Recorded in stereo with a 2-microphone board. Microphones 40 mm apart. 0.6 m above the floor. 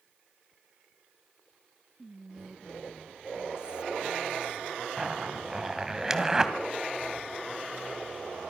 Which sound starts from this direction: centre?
A zipper, at 5.0 s.